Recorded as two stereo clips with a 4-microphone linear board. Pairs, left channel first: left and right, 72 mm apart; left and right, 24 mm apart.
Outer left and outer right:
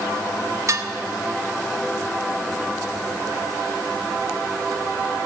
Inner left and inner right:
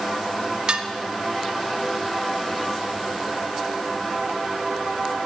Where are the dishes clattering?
40° right (ahead or behind), 0.6 m.